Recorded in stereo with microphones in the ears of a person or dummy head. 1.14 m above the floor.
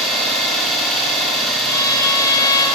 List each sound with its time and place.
0.0 s an engine running: centre (ahead or behind), 3.5 m
1.7 s a violin: 20° left (ahead or behind), 3 m